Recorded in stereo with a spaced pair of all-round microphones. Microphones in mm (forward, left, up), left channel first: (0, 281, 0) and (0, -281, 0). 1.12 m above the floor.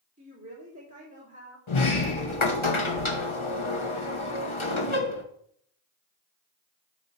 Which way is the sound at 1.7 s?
60° left (ahead or behind).